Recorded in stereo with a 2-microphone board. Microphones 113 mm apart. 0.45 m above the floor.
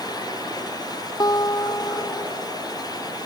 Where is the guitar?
35° left (ahead or behind).